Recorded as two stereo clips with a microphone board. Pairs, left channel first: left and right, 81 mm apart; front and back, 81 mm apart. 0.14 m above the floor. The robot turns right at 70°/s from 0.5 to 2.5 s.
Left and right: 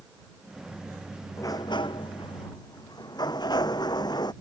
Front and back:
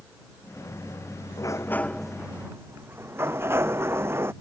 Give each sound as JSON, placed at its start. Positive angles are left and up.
{"t": 1.4, "sound": "a sliding door", "azimuth_deg": 40}